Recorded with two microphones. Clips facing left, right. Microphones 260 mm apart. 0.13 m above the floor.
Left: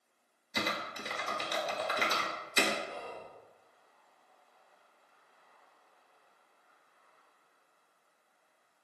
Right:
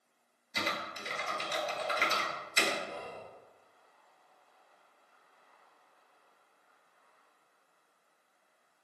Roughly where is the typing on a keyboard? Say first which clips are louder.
Left 2 dB; left.